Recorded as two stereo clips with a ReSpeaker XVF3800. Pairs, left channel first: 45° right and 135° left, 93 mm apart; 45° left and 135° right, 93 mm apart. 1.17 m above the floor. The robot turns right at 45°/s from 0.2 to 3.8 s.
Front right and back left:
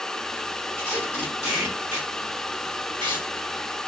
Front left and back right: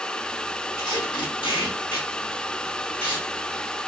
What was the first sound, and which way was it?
Tape being pulled, 10° left.